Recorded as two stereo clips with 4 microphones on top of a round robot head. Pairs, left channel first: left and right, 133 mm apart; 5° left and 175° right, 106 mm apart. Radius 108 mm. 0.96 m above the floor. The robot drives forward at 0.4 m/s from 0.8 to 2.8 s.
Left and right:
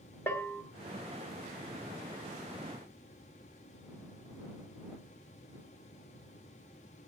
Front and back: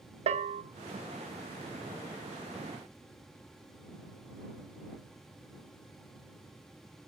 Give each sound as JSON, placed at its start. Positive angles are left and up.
{"t": 0.3, "sound": "a bell", "azimuth_deg": 170, "distance_m": 0.8}